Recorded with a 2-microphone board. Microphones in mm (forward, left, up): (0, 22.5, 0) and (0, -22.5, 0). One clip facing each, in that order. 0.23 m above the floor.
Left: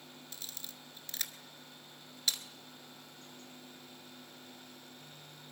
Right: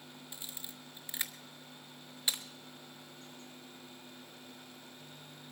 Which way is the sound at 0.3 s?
20° right (ahead or behind).